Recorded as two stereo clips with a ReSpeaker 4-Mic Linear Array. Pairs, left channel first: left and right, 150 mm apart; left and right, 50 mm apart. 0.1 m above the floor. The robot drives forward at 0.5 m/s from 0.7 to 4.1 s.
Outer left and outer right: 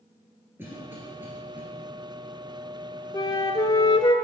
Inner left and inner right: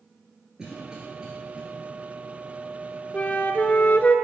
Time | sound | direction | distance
0.6 | a cough | 15° right (ahead or behind) | 1.8 m
3.1 | a flute | 25° left (ahead or behind) | 0.8 m